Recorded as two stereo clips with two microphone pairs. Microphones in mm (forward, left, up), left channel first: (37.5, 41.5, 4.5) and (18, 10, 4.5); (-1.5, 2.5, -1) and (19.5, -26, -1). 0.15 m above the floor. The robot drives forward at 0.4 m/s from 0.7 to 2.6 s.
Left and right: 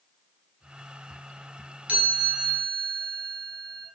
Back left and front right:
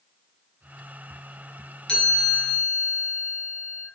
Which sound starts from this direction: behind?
A chime, at 1.9 s.